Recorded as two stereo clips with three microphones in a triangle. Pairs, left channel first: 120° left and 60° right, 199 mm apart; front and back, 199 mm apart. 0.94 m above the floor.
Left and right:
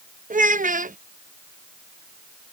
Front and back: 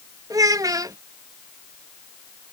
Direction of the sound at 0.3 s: 110° right.